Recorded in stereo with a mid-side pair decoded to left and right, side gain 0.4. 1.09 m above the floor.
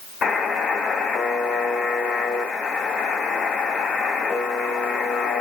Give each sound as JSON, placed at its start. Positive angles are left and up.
{"t": 0.2, "sound": "a buzzer", "azimuth_deg": 70, "distance_m": 2.5}